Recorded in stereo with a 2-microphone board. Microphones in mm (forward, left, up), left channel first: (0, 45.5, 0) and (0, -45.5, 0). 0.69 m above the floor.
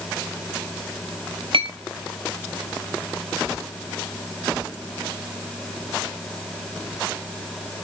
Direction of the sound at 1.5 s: 70° right (ahead or behind).